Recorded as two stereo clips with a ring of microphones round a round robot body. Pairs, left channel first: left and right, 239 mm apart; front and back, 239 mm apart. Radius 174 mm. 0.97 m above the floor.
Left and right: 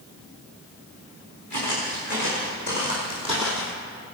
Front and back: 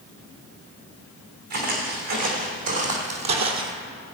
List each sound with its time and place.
1.5 s footsteps: 160° right, 4.5 m; by 3.7 s 170° right, 1.2 m